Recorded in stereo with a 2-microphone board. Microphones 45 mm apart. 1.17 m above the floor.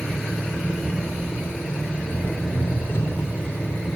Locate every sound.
0.0 s an engine running: 80° left, 8 m